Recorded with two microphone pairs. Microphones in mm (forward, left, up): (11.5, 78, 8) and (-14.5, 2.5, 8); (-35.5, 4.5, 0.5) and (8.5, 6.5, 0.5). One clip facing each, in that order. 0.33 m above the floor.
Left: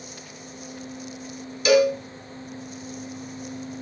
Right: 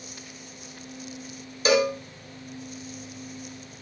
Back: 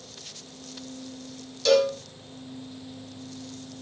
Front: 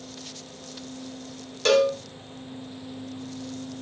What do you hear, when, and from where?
1.6 s a cowbell: 50° right, 0.5 m